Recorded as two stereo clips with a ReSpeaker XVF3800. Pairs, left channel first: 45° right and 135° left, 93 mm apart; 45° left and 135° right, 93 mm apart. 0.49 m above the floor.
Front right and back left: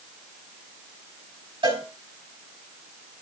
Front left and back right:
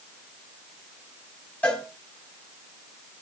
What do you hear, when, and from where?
1.6 s a cowbell: 120° left, 4 m